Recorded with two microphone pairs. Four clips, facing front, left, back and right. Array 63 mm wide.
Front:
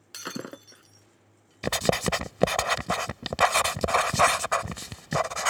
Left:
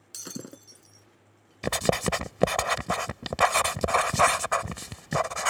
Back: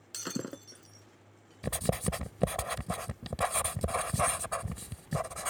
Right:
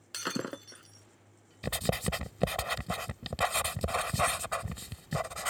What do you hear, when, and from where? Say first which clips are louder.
0.1 s breaking glass: right 6 dB, front 2 dB; 65° right
1.6 s writing: left 7 dB, front 8 dB; 65° left